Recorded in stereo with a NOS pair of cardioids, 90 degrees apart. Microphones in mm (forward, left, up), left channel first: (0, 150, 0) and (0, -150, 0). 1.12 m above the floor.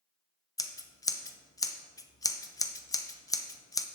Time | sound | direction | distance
0.6 | scissors | 10° left | 0.6 m